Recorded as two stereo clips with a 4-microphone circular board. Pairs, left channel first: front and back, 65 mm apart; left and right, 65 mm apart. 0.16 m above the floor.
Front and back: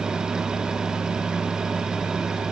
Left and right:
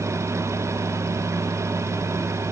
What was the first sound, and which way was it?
Only background noise.